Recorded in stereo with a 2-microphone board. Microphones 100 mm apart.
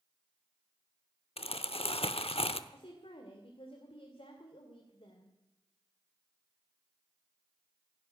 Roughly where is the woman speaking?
Left.